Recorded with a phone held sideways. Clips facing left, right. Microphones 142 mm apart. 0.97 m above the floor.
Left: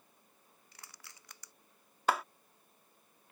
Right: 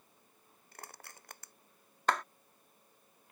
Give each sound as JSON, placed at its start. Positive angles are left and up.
{"t": 0.7, "sound": "crushing", "side_deg": -50}
{"t": 2.1, "sound": "a clap", "side_deg": 5}